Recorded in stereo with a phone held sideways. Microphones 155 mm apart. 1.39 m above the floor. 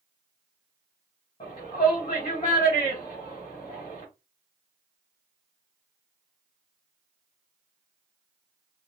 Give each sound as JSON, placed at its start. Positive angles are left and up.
{"t": 1.4, "sound": "a shout", "side_deg": 30, "distance_m": 2.5}